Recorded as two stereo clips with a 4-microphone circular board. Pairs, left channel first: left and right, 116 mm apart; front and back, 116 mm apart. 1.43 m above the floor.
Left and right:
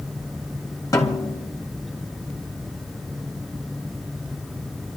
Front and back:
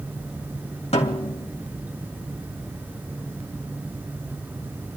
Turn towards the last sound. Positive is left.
turn(degrees=30)